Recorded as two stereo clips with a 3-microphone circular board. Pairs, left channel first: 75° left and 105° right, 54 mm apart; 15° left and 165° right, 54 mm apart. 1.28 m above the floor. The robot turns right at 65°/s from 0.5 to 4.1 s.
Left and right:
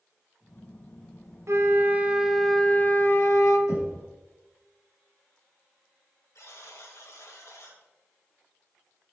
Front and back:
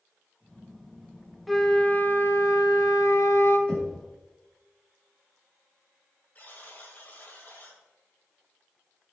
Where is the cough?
I don't hear a cough.